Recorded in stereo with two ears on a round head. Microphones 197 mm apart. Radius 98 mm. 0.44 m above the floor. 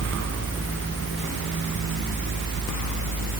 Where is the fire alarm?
No fire alarm in this recording.